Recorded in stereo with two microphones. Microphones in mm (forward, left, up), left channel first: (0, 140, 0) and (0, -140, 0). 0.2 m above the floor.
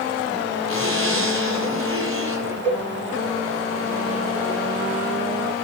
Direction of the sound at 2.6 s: 10° left (ahead or behind).